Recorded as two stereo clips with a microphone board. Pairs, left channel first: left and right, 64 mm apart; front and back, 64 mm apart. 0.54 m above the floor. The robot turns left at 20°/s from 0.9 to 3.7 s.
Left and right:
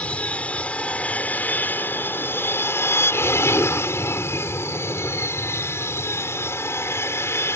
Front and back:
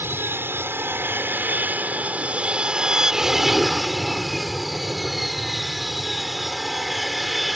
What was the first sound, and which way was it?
An aircraft, 150° left.